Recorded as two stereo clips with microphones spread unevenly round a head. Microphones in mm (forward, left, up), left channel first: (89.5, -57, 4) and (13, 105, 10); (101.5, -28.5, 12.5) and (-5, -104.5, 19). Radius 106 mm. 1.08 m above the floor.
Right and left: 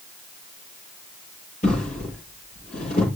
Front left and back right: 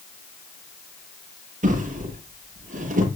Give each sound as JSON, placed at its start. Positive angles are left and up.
{"t": 1.6, "sound": "a drawer", "azimuth_deg": -125, "distance_m": 7.5}